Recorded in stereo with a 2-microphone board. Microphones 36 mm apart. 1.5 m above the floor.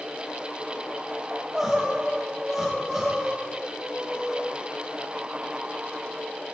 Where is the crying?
10° right (ahead or behind), 1.6 m.